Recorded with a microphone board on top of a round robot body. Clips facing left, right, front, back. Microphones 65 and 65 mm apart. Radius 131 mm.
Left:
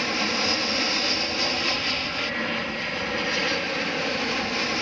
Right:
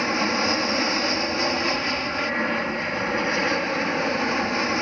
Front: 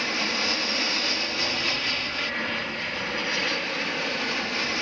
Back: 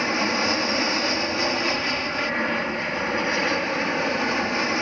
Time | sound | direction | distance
0.0 | an aircraft | 135° right | ?